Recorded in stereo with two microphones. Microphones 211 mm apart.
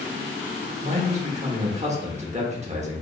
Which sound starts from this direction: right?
A man speaking, at 0.8 s.